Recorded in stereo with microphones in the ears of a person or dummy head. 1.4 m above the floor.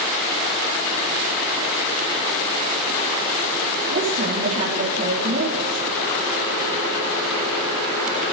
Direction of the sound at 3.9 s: 35° right (ahead or behind).